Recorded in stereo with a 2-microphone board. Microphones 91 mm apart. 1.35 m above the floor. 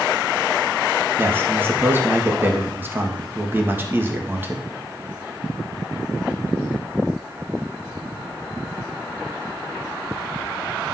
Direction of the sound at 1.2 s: 25° right (ahead or behind).